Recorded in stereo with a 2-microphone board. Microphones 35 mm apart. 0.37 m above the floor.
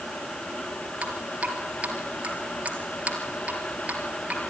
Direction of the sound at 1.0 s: 35° right (ahead or behind).